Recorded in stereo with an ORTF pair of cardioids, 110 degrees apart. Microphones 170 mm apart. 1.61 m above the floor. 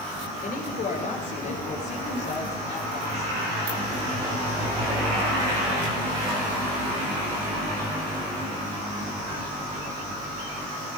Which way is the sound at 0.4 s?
55° left.